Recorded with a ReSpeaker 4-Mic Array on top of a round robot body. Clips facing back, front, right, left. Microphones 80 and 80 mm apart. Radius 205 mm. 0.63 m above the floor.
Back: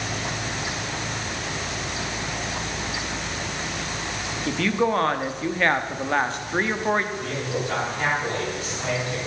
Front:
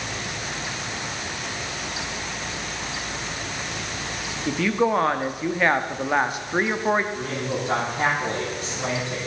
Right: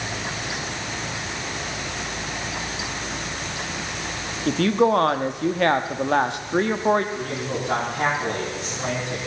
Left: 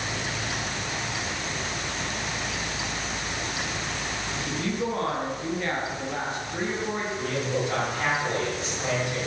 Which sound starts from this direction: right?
A woman speaking, at 4.5 s.